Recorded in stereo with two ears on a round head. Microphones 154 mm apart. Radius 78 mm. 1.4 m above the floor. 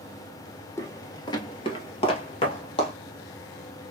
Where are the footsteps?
20° left (ahead or behind), 1.7 m; by 2.9 s 30° left (ahead or behind), 2 m.